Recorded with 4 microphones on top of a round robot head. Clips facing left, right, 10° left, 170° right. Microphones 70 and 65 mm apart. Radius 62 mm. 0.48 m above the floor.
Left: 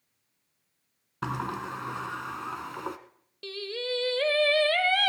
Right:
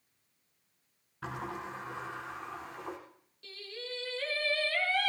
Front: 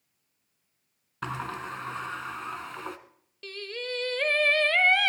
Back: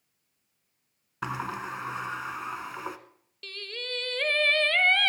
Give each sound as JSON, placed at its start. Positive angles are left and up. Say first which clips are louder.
{"t": 1.2, "sound": "a sliding door", "louder": "left 7 dB, back 1 dB", "azimuth_deg": 110, "distance_m": 1.1}
{"t": 3.4, "sound": "singing", "louder": "left 11 dB, front 3 dB", "azimuth_deg": 85, "distance_m": 1.1}